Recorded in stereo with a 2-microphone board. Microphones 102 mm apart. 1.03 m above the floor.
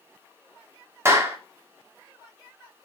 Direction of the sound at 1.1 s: 25° right (ahead or behind).